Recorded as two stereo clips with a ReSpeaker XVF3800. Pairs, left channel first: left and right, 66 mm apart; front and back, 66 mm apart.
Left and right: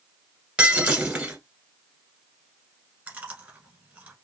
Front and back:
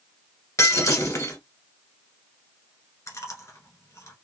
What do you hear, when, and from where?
0.6 s breaking glass: 20° right, 1.4 m
3.1 s chewing: 25° right, 1.6 m